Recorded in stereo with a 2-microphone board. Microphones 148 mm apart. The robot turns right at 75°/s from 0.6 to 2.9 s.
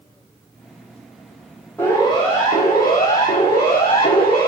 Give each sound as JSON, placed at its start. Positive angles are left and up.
{"t": 1.8, "sound": "a siren", "side_deg": 10, "distance_m": 9.5}